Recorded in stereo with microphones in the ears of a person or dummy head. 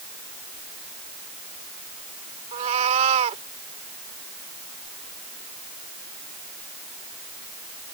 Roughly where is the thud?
No thud in this recording.